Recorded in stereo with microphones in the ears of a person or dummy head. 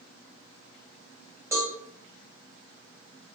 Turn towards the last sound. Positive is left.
turn(degrees=-15)  # may be behind; listen again after turning